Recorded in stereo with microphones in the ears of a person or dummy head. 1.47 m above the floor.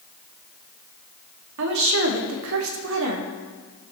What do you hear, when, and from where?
1.6 s a woman speaking: 70° right (ahead or behind), 1.7 m